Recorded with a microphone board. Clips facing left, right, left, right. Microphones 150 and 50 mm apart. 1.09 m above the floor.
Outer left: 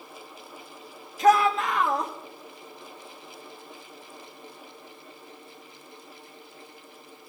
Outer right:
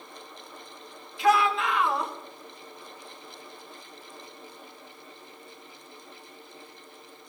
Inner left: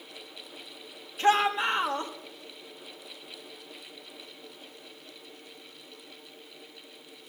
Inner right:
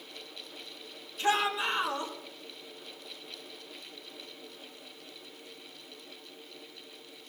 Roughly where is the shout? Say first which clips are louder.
Outer left 3 dB, inner left 5 dB; left.